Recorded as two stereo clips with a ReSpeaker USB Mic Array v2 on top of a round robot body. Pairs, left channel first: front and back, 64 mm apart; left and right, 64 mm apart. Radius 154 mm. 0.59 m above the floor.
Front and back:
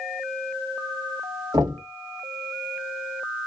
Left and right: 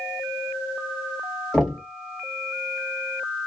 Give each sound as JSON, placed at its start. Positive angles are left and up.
{"t": 1.5, "sound": "knocking", "azimuth_deg": 175, "distance_m": 2.0}